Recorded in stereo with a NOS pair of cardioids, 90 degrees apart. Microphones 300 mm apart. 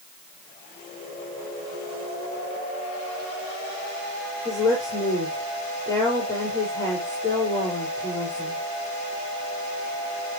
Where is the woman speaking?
10° left, 5.5 m.